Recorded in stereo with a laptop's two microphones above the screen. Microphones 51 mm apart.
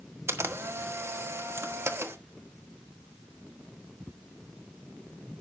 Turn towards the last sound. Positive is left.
turn(degrees=-60)  # may be behind; listen again after turning